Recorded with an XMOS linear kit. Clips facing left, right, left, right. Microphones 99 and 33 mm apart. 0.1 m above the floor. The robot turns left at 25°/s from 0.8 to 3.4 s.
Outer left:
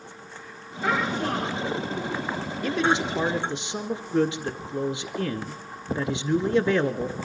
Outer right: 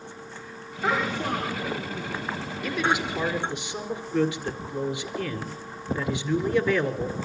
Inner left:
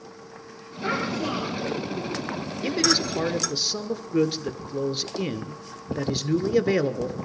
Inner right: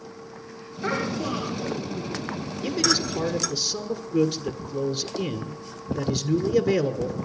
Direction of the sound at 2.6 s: 30° left (ahead or behind).